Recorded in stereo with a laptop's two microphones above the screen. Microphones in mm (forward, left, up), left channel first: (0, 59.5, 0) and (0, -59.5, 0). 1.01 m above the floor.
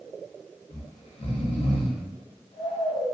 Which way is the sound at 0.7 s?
65° left (ahead or behind).